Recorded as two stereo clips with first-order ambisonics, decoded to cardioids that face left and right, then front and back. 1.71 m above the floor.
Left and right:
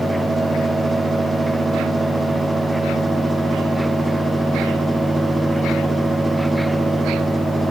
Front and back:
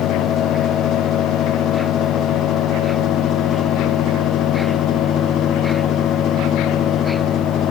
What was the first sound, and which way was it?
Only background noise.